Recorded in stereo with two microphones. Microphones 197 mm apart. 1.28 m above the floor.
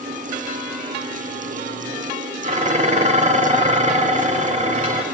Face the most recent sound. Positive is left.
turn(degrees=-35)  # may be behind; listen again after turning